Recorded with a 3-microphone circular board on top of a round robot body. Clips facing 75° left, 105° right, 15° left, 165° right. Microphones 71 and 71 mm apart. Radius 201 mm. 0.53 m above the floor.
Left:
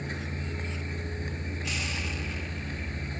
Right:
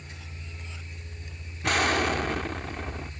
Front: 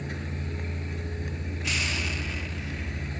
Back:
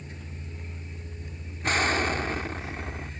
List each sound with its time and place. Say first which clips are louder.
0.0 s a vehicle: left 10 dB, front 8 dB; 35° left
1.6 s an explosion: right 14 dB, back 8 dB; 125° right